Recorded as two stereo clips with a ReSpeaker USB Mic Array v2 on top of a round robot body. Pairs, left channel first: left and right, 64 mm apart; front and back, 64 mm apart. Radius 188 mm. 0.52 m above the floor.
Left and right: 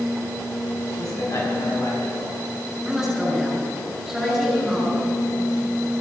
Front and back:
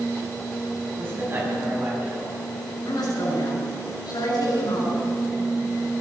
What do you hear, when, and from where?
1.0 s a man speaking: 120° left, 6.5 m
2.9 s a woman speaking: 5° right, 6.5 m